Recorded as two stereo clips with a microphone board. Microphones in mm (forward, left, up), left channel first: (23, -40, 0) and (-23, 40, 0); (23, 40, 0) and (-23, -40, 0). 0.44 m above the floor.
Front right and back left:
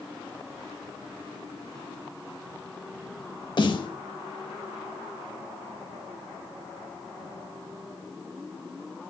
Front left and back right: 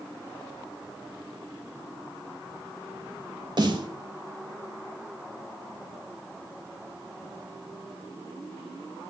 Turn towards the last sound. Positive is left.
turn(degrees=-90)